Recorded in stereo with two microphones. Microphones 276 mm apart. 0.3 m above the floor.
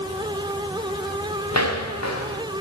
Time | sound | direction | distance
1.5 | footsteps | 70° left (ahead or behind) | 1.5 m